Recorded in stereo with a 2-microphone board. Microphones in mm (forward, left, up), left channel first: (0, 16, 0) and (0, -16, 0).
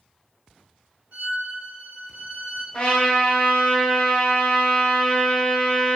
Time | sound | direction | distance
1.1 | a violin | 40° right (ahead or behind) | 1.5 m
2.7 | a trumpet | 45° left (ahead or behind) | 1.2 m